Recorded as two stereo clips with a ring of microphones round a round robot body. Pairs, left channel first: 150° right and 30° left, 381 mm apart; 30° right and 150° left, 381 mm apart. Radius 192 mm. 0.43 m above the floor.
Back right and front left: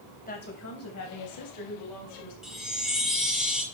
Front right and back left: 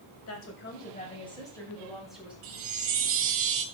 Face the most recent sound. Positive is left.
turn(degrees=120)